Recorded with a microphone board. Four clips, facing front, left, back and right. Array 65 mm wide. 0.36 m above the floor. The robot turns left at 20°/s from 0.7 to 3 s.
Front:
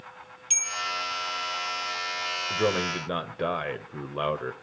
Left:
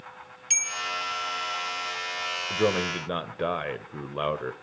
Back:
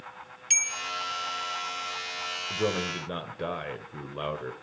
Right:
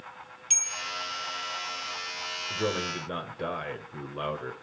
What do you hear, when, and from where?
0.5 s a bell: 150° left, 1.0 m
2.5 s a man speaking: 50° left, 1.1 m; by 4.5 s 40° left, 1.1 m